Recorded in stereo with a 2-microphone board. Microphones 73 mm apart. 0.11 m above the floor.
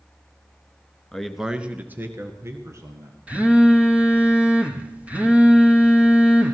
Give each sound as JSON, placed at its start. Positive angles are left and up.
{"t": 1.1, "sound": "a man speaking", "side_deg": 10, "distance_m": 1.2}
{"t": 3.3, "sound": "a phone buzzing", "side_deg": -20, "distance_m": 1.6}